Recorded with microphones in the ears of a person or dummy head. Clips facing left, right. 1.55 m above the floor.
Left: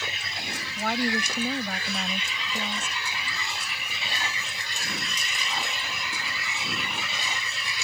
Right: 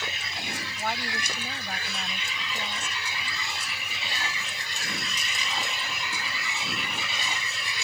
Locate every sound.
0.8 s a woman speaking: 80° left